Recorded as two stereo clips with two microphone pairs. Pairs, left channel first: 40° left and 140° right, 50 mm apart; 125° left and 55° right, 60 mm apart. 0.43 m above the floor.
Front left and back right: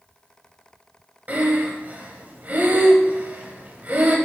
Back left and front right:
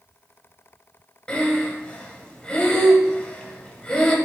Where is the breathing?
165° right, 1.5 m.